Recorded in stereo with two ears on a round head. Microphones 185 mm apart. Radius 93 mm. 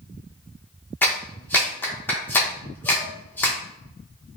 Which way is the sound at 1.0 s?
10° left (ahead or behind).